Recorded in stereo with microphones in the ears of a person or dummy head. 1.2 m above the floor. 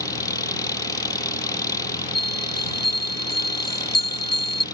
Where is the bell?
25° left (ahead or behind).